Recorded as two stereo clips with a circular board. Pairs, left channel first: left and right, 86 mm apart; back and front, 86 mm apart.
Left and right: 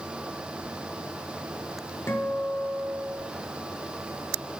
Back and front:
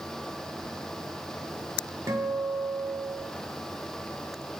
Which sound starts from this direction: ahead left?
A guitar, at 2.1 s.